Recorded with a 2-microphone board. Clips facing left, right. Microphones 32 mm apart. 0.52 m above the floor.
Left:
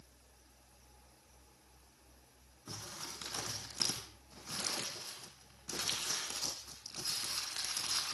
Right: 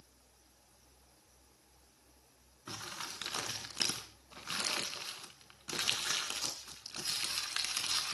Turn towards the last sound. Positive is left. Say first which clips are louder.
# right 4 dB
turn(degrees=-65)  # may be behind; listen again after turning